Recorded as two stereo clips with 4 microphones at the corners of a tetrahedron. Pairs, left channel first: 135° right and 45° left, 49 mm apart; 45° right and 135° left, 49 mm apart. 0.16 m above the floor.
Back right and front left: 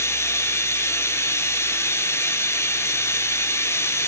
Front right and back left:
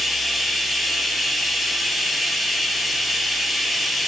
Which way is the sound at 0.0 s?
135° right.